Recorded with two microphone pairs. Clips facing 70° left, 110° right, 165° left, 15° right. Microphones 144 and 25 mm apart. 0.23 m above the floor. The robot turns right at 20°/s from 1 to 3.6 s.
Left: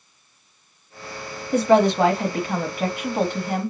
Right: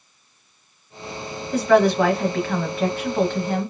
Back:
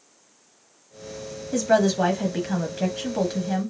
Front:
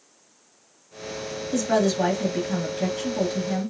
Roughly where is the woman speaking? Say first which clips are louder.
Even, back 2 dB; left.